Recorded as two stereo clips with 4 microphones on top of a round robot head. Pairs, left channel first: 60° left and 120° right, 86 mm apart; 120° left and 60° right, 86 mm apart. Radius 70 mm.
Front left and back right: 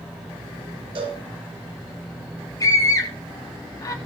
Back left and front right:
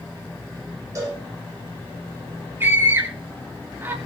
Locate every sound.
0.9 s a cowbell: 115° right, 8 m
2.6 s a scream: 10° left, 3 m